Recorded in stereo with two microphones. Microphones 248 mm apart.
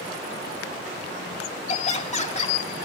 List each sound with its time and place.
1.7 s laughter: 25° left (ahead or behind), 2 m